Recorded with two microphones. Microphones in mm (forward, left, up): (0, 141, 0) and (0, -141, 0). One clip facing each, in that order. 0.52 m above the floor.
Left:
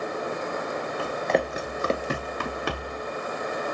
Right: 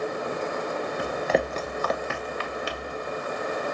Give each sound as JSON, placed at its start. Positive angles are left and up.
{"t": 1.0, "sound": "running footsteps", "side_deg": -20, "distance_m": 1.2}